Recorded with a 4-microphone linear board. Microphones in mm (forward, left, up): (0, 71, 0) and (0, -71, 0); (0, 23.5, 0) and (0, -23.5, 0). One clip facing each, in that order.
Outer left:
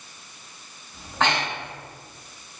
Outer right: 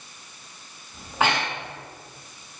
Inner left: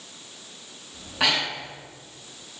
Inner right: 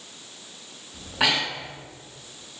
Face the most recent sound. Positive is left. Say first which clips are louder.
# even, inner right 1 dB
turn(degrees=-5)  # may be behind; listen again after turning